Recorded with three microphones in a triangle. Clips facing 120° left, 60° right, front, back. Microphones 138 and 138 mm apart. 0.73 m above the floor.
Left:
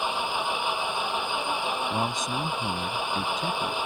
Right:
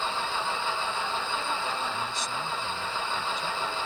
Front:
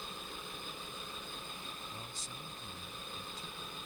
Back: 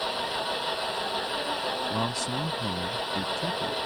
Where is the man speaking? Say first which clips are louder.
Left 5 dB, back 20 dB; 160° left.